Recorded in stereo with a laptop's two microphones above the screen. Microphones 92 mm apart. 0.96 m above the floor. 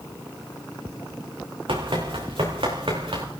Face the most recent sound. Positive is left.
turn(degrees=-75)  # may be behind; listen again after turning